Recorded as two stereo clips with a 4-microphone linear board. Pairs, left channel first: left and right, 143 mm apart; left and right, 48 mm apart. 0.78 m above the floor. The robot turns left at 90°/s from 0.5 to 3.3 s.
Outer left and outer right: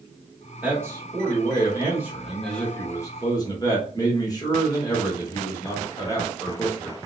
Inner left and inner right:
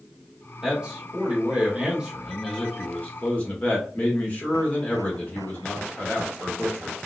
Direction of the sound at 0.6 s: 10° right (ahead or behind).